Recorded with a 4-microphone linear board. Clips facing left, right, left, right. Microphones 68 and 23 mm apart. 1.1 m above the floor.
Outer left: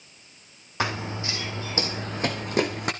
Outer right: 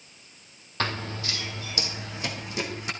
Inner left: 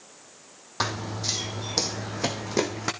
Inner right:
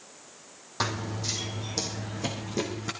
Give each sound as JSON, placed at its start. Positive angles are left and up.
{"t": 0.8, "sound": "running footsteps", "side_deg": 10, "distance_m": 1.7}